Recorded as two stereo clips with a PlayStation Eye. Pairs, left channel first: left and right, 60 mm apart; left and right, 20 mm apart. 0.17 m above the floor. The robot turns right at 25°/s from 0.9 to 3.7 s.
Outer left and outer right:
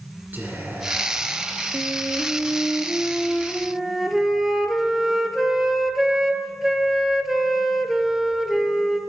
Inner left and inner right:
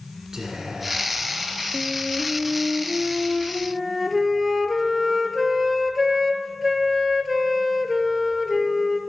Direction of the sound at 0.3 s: 35° right (ahead or behind).